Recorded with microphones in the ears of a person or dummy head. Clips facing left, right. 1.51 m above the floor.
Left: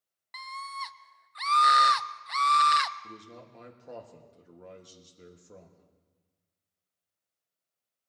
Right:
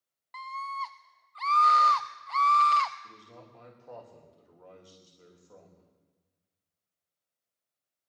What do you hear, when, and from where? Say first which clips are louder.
0.3 s a scream: right 3 dB; 20° left (ahead or behind), 0.5 m
3.0 s a man speaking: left 4 dB; 30° left (ahead or behind), 1.6 m